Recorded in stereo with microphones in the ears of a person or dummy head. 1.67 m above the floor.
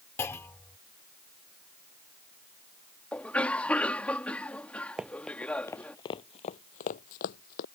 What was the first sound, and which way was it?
A clunk, 15° left (ahead or behind).